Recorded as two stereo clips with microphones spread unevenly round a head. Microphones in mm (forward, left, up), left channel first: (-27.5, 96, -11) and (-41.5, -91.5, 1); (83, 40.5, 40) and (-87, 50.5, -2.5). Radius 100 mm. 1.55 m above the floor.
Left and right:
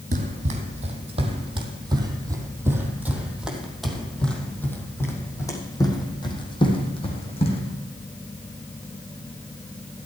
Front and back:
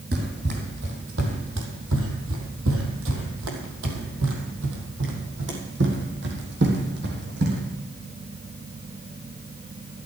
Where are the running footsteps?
135° right, 3 m; by 7.6 s 145° left, 4 m.